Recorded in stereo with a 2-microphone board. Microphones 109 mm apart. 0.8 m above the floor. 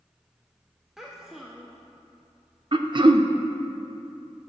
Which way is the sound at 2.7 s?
45° right (ahead or behind).